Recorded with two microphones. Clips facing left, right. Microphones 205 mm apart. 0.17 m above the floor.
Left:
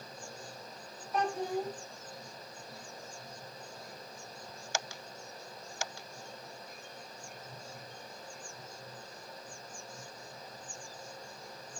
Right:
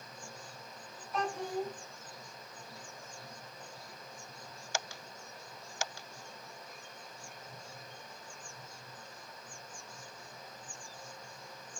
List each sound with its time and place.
1.1 s a child speaking: 35° left (ahead or behind), 0.7 m